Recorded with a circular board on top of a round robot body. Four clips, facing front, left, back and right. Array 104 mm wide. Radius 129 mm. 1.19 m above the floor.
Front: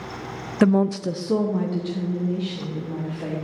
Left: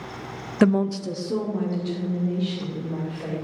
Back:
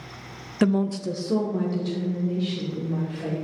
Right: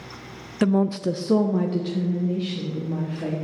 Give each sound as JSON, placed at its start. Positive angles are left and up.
{"t": 0.6, "sound": "a woman speaking", "azimuth_deg": 55, "distance_m": 0.5}